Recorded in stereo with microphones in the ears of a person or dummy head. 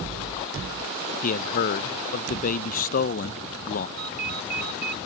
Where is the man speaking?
45° left (ahead or behind).